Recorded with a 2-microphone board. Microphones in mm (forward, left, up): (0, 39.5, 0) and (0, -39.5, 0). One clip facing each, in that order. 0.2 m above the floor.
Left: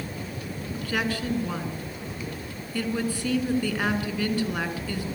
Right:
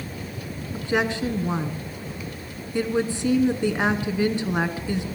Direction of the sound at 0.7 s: 20° right (ahead or behind).